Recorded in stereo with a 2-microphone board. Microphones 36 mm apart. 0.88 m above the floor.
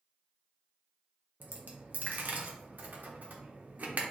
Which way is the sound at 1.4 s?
60° right (ahead or behind).